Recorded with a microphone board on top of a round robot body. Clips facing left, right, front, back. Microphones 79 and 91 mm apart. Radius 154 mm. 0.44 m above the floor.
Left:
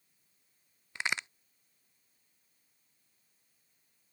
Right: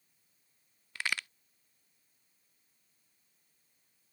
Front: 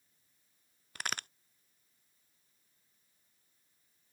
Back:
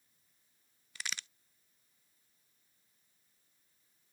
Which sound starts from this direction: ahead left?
A crack, at 0.9 s.